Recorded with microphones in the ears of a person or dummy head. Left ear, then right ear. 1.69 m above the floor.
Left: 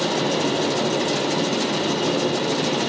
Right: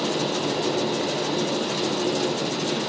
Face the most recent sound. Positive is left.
turn(degrees=15)  # may be behind; listen again after turning